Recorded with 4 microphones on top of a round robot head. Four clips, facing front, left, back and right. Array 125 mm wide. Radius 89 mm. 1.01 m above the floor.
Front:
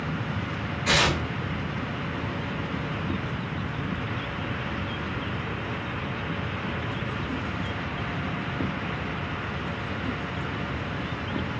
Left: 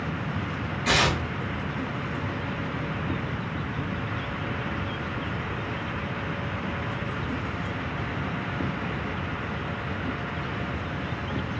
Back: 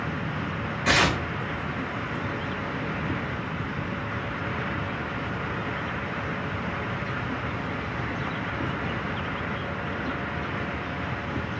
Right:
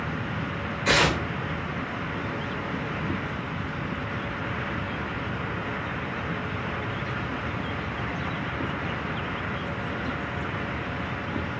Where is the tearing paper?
160° left, 2 m.